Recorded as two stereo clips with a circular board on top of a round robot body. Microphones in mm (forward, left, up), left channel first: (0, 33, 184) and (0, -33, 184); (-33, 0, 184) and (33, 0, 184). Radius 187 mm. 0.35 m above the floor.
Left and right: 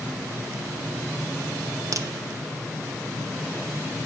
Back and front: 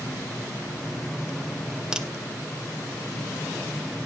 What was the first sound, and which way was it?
A crack, 75° right.